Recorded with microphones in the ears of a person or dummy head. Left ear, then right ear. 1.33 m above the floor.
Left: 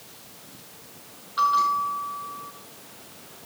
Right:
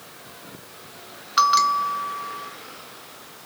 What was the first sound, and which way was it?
A bell, 70° right (ahead or behind).